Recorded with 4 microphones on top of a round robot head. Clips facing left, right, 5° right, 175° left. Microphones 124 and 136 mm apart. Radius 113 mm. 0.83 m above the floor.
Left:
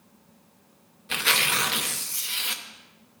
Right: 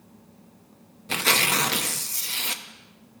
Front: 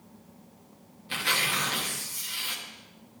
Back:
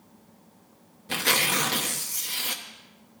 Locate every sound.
1.1 s tearing paper: 140° right, 0.8 m